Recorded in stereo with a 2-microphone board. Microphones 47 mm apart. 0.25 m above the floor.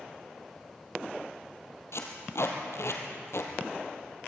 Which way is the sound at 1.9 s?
70° left (ahead or behind).